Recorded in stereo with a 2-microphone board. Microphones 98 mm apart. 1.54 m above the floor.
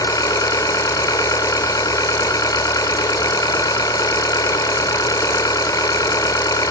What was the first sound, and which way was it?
An engine running, 40° left (ahead or behind).